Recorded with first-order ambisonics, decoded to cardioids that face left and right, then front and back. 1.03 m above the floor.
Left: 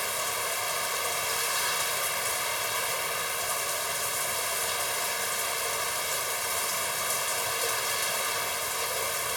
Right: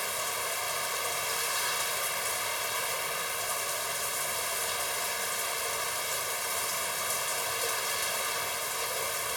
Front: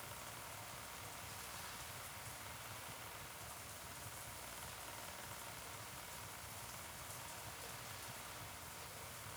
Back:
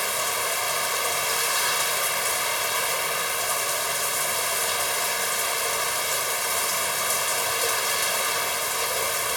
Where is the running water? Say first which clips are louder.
Left 2 dB, back 26 dB; 175° left.